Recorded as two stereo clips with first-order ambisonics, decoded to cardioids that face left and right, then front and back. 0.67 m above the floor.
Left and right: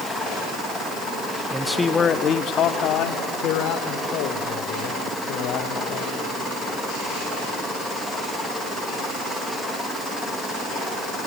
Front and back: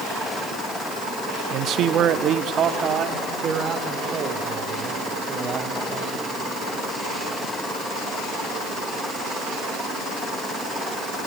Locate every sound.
1.5 s a man speaking: 165° right, 0.6 m; by 6.2 s 110° left, 3.5 m